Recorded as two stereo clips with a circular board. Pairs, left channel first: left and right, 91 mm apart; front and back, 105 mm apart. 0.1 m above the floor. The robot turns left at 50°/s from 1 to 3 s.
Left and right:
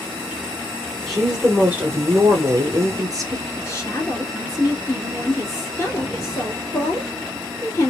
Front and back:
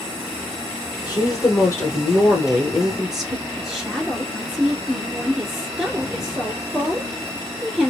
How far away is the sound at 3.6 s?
About 1.5 m.